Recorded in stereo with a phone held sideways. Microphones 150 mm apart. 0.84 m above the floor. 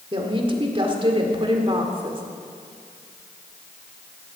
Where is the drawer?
No drawer in this recording.